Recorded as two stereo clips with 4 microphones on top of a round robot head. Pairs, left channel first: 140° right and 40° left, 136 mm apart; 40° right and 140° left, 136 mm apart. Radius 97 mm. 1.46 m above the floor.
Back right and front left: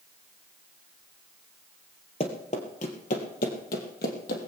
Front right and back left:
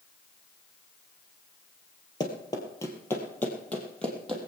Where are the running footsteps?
95° right, 1.9 m; by 4.5 s 130° right, 2.5 m.